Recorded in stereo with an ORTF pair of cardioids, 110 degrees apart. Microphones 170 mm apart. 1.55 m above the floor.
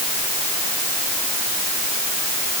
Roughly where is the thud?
I don't hear a thud.